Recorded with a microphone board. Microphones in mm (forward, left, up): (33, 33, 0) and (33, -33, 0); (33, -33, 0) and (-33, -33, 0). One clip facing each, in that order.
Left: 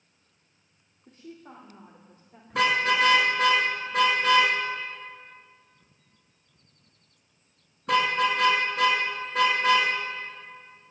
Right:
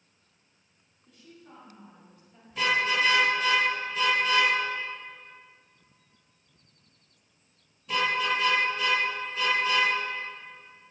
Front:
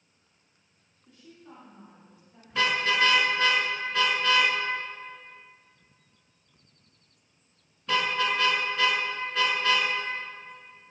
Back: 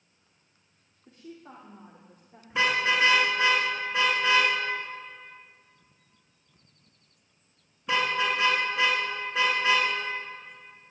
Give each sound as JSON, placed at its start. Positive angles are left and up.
{"t": 1.1, "sound": "a woman speaking", "azimuth_deg": 125, "distance_m": 2.5}
{"t": 2.5, "sound": "a car horn", "azimuth_deg": 110, "distance_m": 5.0}